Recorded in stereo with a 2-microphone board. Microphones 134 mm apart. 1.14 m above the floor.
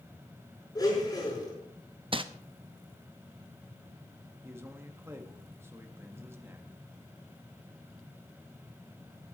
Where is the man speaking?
20° right (ahead or behind), 1.5 m.